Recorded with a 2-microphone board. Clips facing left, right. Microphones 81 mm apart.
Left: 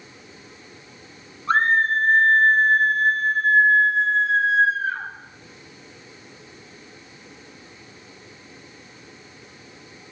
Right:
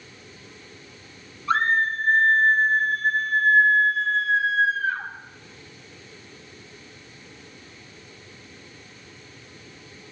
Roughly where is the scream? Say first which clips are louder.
Left 3 dB; left.